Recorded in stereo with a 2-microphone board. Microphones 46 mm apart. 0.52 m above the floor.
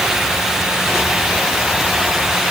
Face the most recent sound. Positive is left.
No sound to turn to.